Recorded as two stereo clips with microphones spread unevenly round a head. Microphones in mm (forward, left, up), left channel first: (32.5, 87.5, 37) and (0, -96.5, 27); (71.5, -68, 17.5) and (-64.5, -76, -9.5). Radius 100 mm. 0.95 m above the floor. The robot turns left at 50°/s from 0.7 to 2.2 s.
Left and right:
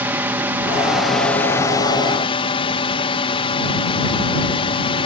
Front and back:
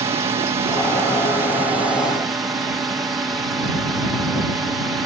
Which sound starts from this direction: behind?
A drone, at 0.0 s.